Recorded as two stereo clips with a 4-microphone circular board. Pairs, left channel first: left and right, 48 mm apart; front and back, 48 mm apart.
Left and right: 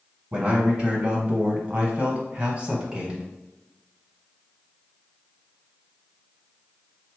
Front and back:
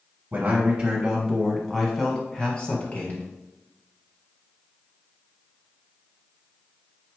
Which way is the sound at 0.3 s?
140° right.